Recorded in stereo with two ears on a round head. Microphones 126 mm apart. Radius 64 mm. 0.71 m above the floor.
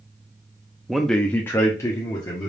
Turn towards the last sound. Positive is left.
turn(degrees=30)  # may be behind; listen again after turning